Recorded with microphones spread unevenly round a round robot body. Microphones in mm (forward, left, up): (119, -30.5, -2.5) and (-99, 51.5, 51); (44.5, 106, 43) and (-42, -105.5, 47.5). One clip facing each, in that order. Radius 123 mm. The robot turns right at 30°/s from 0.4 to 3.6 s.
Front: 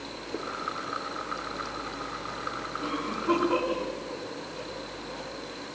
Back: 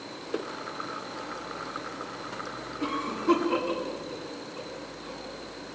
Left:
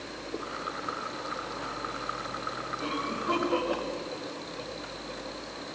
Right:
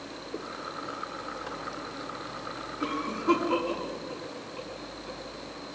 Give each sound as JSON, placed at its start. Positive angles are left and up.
{"t": 2.8, "sound": "a cough", "azimuth_deg": -145, "distance_m": 9.5}